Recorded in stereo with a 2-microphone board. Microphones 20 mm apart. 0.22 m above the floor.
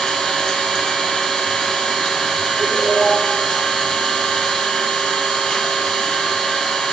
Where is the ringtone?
60° right (ahead or behind), 2 m.